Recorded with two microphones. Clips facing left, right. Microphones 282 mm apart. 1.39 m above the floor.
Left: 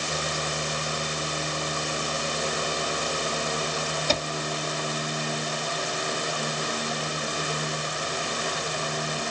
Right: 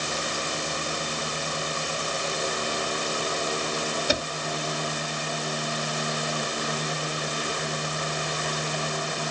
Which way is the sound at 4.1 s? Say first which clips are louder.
Left 1 dB; 15° right (ahead or behind).